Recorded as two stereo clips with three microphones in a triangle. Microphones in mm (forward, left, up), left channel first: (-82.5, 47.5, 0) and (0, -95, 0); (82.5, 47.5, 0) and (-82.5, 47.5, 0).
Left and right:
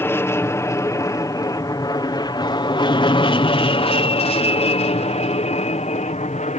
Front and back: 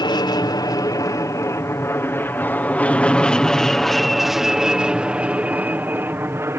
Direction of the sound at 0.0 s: 50° left.